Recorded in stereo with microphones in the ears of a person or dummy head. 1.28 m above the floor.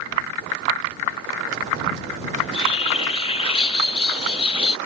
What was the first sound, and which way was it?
A bird, 30° left (ahead or behind).